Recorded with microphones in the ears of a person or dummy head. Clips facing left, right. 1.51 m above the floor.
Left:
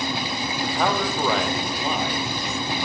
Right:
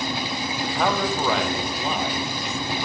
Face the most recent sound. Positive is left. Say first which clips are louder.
# even
turn(degrees=0)  # may be behind; listen again after turning